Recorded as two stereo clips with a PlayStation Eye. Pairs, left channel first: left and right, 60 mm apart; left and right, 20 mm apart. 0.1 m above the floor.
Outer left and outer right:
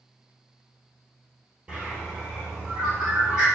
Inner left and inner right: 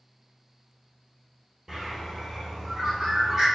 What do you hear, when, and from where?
1.7 s a bird: 20° right (ahead or behind), 1.0 m